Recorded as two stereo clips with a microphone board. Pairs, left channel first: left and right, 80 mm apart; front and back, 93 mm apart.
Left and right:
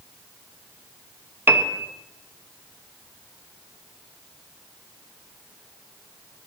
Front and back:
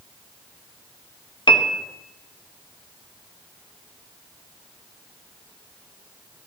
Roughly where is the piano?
Ahead right.